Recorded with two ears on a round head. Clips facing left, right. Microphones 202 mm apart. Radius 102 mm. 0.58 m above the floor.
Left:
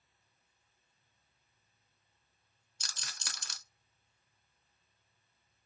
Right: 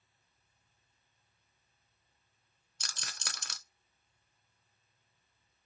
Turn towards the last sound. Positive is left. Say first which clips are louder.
# right 3 dB
turn(degrees=-45)  # may be behind; listen again after turning